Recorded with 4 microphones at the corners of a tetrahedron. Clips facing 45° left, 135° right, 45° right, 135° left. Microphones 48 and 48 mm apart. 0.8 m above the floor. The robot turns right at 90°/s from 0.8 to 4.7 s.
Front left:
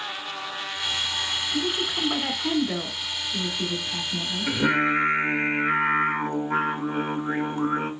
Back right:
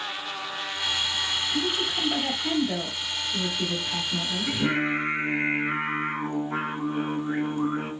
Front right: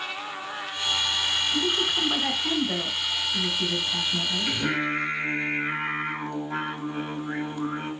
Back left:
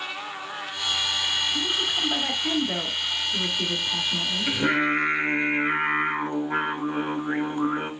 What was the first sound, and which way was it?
A woman speaking, 30° right.